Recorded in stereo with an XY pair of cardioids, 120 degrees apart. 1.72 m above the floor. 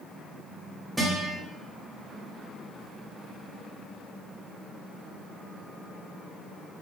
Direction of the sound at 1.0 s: 10° right.